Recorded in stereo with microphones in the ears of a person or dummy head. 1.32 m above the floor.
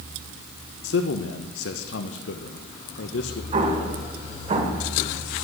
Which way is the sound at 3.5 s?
40° right (ahead or behind).